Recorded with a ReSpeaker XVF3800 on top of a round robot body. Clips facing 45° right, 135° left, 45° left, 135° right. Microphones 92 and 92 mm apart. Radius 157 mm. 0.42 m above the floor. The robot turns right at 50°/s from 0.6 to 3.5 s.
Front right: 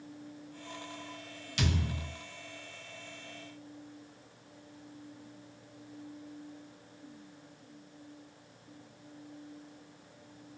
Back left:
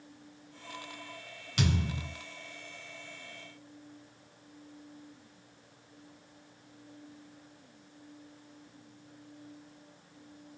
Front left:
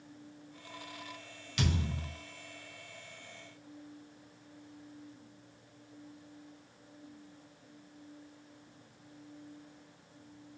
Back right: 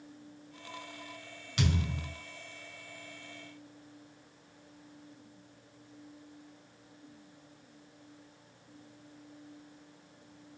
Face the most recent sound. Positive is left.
turn(degrees=-90)